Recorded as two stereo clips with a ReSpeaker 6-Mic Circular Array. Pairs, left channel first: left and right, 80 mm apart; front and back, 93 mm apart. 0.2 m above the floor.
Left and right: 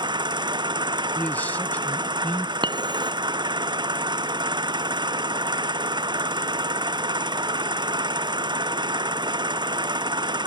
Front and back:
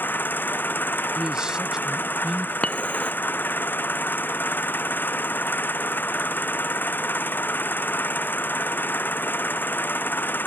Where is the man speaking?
115° left.